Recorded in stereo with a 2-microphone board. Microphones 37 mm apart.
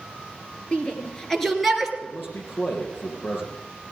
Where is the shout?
35° left (ahead or behind), 2.5 m; by 1.9 s 5° right (ahead or behind), 2.5 m.